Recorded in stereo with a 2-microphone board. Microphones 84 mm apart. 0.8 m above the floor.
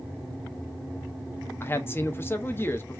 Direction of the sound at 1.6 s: 25° left (ahead or behind).